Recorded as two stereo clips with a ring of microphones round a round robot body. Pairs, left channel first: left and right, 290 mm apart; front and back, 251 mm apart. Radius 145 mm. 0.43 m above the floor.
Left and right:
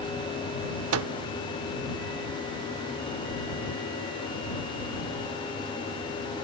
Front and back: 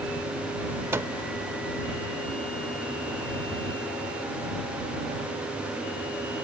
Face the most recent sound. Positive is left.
turn(degrees=-105)